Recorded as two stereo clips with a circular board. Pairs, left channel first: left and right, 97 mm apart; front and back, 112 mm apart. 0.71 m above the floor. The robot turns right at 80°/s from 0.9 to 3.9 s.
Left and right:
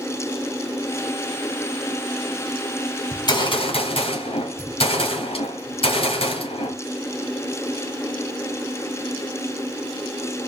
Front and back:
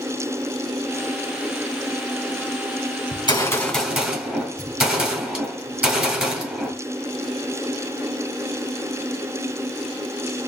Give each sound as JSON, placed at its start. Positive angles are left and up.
{"t": 3.1, "sound": "a gunshot", "azimuth_deg": 35, "distance_m": 2.5}